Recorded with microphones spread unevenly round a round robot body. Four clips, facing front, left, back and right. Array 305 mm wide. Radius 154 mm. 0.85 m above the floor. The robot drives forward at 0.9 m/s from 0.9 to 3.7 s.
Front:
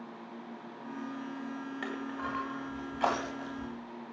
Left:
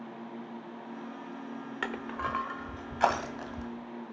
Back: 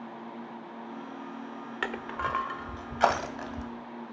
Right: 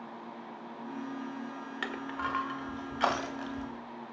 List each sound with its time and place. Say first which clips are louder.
1.8 s crushing: left 1 dB, back 6 dB; 175° left, 1.0 m; by 3.7 s straight behind, 2.5 m